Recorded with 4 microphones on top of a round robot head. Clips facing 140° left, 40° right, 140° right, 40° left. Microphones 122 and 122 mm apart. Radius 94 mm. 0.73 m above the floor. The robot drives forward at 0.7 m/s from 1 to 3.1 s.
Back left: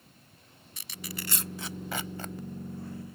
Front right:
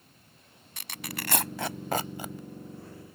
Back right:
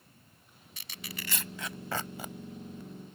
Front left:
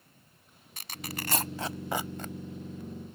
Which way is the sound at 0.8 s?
5° right.